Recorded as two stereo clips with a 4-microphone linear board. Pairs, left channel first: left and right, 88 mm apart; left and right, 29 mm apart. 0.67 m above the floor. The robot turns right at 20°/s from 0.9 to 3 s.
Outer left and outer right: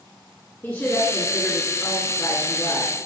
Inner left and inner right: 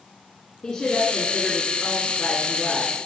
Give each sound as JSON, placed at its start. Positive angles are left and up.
{"t": 0.6, "sound": "a woman speaking", "azimuth_deg": 30, "distance_m": 1.9}